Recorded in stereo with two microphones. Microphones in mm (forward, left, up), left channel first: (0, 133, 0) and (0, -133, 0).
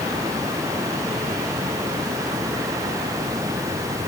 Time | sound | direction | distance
0.0 | running water | 10° right (ahead or behind) | ?